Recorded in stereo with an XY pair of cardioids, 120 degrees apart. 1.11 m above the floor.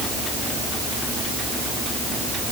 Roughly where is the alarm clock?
No alarm clock in this recording.